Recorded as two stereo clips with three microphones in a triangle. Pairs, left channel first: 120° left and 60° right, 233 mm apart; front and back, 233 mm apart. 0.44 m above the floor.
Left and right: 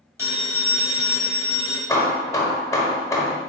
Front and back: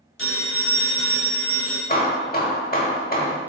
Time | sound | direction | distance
0.2 | a phone ringing | 15° left | 1.3 m
1.9 | hammering | 45° left | 0.7 m